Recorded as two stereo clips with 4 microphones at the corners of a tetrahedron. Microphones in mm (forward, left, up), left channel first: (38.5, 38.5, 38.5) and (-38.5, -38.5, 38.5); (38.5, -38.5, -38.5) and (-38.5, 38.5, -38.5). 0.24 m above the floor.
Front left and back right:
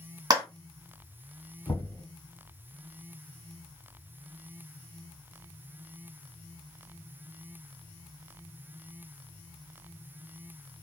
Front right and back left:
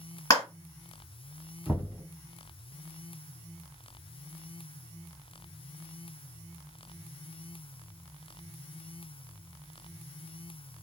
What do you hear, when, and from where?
0.3 s a clap: 95° right, 1.7 m
1.7 s knocking: 70° left, 1.4 m